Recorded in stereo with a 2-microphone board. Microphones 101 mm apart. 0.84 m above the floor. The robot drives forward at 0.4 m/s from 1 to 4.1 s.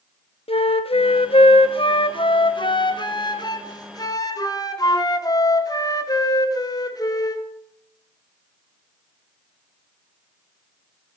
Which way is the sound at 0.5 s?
70° left (ahead or behind).